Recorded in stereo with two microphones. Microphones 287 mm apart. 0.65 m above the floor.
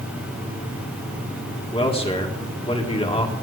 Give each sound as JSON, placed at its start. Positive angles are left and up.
{"t": 1.7, "sound": "a man speaking", "side_deg": 20, "distance_m": 1.6}